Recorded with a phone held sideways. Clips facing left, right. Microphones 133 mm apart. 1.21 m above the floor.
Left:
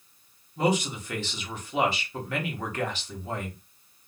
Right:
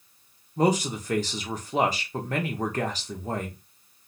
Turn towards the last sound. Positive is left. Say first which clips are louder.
# right 2 dB
turn(degrees=-40)  # may be behind; listen again after turning